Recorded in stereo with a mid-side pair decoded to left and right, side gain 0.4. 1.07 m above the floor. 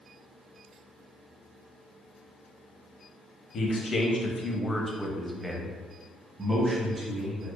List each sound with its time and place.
3.5 s a man speaking: 65° left, 1.0 m; by 7.5 s 40° right, 1.8 m